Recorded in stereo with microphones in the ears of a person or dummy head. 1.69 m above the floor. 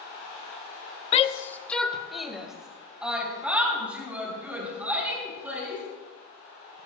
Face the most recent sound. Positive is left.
turn(degrees=-5)  # may be behind; listen again after turning